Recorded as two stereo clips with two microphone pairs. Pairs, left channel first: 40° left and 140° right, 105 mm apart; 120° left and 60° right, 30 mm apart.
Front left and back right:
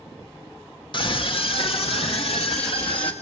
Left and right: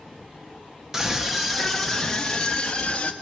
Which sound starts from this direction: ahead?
A scream, at 0.9 s.